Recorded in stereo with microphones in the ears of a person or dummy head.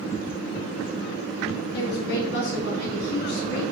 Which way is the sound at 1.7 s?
55° left (ahead or behind).